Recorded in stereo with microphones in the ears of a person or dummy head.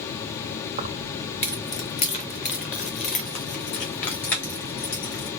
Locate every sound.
0.8 s keys jangling: 25° right (ahead or behind), 0.7 m; by 5.3 s 45° left (ahead or behind), 3.5 m